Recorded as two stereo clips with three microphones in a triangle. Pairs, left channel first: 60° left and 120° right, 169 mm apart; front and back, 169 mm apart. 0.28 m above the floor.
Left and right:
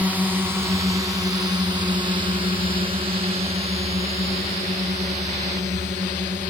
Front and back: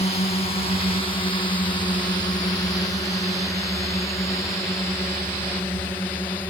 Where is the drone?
40° right; by 6.5 s 80° right.